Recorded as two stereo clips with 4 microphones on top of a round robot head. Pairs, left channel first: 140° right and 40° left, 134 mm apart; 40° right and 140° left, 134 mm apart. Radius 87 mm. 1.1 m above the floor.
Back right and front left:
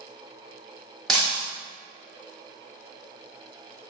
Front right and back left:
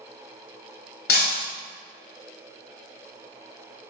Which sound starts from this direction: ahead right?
Breaking glass, at 1.1 s.